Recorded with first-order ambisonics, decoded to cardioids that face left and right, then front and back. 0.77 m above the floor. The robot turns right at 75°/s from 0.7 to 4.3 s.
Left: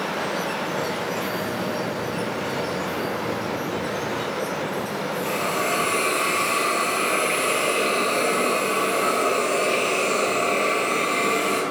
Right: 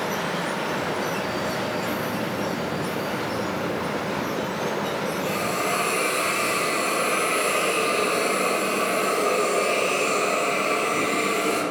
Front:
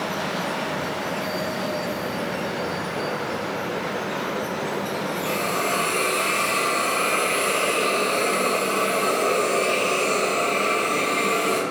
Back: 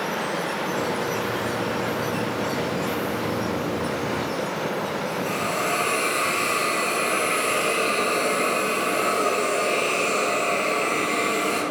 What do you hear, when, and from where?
5.2 s a hiss: 10° left, 0.9 m